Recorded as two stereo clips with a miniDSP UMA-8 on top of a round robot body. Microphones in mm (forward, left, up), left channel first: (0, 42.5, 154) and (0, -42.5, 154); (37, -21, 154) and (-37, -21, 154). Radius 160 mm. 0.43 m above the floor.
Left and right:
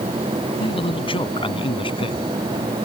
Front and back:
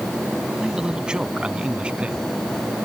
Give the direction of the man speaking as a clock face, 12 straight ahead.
9 o'clock.